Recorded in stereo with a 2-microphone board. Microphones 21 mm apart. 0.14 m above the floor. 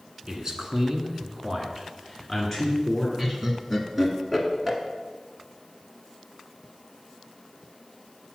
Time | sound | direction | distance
0.3 | a man speaking | 35° right (ahead or behind) | 1.2 m
3.2 | laughter | 10° right (ahead or behind) | 1.4 m